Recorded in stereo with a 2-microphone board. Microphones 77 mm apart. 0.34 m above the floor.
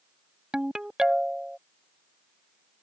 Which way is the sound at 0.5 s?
10° right (ahead or behind).